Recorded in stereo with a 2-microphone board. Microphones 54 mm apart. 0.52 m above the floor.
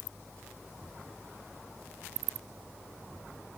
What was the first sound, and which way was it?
Only background noise.